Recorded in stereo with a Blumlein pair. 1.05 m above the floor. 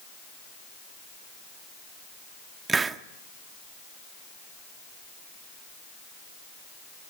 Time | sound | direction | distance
2.7 | a hiss | 15° right | 0.7 m